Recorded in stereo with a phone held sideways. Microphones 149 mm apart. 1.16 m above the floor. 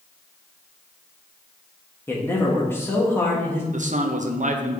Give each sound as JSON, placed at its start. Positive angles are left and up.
{"t": 2.1, "sound": "a man speaking", "side_deg": 15, "distance_m": 1.5}
{"t": 3.7, "sound": "a man speaking", "side_deg": -55, "distance_m": 0.7}